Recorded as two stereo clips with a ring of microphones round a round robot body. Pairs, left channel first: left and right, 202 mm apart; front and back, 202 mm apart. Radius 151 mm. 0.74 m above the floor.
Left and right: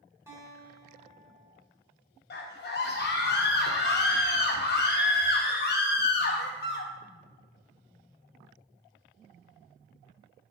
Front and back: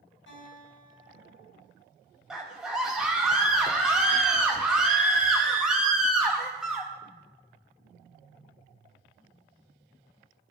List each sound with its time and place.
0.3 s a guitar: 15° right, 3.5 m
2.3 s a scream: 95° left, 0.7 m